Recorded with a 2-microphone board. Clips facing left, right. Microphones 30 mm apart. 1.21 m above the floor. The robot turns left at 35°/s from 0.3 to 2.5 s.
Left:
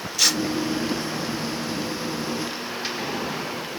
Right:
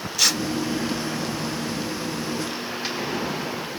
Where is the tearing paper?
5° right (ahead or behind), 1.1 m.